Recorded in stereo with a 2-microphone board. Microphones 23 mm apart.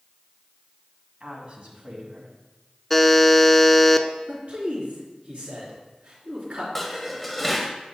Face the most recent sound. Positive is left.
turn(degrees=5)  # may be behind; listen again after turning